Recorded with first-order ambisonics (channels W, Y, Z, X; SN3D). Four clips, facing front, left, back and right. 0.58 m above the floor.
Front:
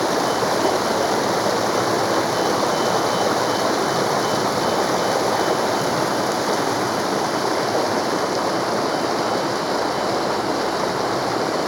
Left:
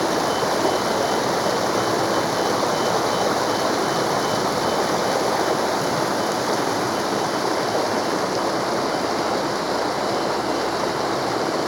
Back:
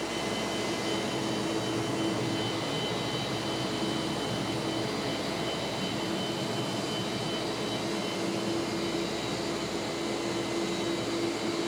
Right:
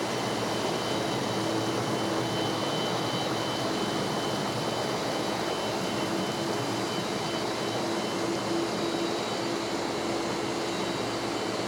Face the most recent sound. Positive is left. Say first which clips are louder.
# left 9 dB, front 12 dB
turn(degrees=35)